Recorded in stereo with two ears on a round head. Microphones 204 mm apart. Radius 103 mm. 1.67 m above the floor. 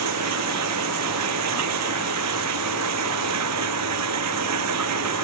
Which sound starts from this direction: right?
Running water, at 0.0 s.